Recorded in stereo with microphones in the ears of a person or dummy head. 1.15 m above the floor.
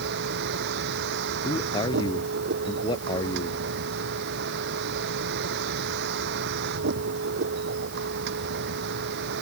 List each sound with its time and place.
0.0 s a vehicle: 70° right (ahead or behind)
1.4 s a man speaking: 25° left (ahead or behind)